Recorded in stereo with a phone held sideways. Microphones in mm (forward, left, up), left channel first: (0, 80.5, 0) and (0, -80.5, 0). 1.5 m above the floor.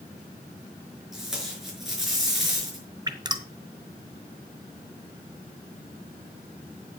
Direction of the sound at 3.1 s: 25° right (ahead or behind).